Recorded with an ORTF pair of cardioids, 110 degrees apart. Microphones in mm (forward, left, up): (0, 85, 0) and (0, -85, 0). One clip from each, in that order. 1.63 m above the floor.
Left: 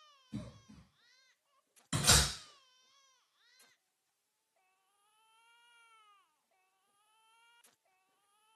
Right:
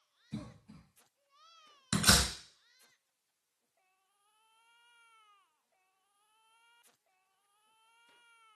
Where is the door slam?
50° right, 1.6 m.